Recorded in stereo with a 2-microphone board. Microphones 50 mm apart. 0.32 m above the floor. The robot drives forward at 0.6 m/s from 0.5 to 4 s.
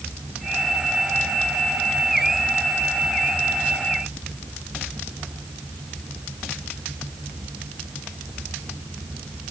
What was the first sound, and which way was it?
Only background noise.